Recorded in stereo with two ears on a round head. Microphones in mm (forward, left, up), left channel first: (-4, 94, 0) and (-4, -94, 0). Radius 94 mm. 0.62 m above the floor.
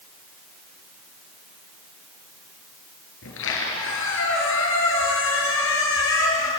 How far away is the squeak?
About 5 m.